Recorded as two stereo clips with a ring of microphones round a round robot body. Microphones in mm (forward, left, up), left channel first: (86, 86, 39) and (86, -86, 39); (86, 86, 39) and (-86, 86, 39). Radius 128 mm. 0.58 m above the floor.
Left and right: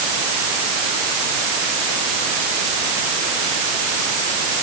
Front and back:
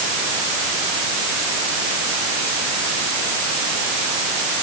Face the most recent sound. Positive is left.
No sound to turn to.